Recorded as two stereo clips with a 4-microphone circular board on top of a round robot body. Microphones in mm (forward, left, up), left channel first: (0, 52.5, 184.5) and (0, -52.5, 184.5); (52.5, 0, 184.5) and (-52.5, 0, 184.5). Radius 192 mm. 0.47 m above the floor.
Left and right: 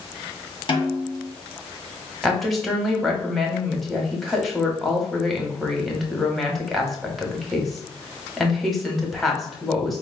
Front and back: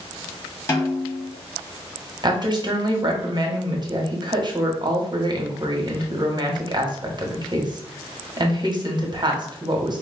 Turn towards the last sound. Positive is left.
turn(degrees=180)